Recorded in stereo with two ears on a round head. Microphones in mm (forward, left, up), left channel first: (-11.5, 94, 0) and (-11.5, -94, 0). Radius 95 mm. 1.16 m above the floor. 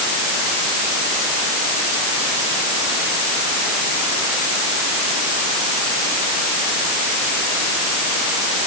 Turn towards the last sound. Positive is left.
No sound to turn to.